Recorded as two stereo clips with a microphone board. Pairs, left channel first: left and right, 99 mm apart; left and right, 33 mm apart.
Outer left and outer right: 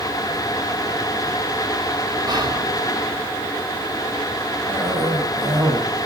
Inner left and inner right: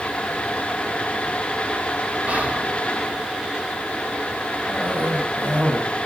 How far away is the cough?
About 6.5 m.